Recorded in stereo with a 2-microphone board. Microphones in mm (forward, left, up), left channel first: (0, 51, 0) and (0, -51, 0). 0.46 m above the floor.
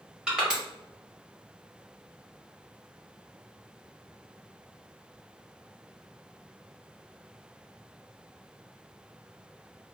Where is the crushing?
10° right (ahead or behind), 1.2 m.